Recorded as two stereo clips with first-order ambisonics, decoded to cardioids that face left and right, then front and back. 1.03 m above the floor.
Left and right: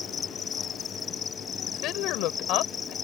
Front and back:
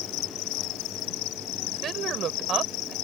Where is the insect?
25° left.